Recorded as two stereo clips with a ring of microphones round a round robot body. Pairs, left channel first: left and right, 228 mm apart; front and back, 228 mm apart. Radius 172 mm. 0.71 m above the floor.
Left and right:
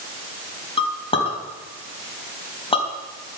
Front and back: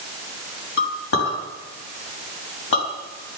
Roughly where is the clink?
Ahead left.